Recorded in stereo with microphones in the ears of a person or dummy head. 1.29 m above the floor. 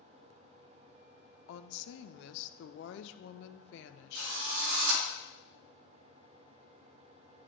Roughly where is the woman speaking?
Left.